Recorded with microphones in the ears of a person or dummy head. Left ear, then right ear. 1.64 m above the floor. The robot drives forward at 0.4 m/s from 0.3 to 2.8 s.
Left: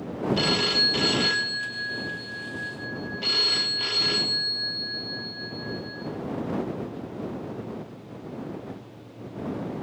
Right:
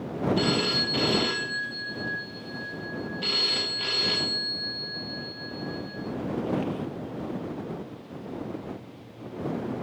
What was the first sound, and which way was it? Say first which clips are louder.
A phone ringing: left 4 dB; 15° left (ahead or behind).